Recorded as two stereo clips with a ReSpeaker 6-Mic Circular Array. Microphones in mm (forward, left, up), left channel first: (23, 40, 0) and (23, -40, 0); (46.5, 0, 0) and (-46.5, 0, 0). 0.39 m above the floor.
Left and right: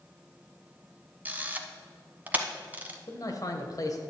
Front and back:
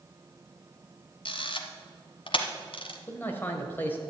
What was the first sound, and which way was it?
A camera shutter, 20° right.